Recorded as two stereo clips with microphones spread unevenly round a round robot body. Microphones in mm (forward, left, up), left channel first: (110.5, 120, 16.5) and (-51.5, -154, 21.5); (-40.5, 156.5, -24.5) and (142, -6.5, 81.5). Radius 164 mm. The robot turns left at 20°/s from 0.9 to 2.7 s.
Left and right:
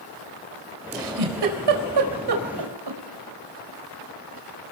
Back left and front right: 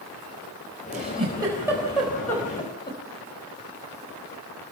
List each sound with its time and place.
0.9 s a giggle: 115° right, 4 m; by 3.0 s 150° right, 4 m